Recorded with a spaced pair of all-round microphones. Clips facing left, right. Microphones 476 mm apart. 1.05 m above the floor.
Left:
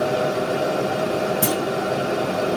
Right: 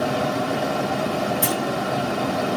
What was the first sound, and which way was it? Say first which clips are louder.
A fan: left 2 dB; 15° right (ahead or behind).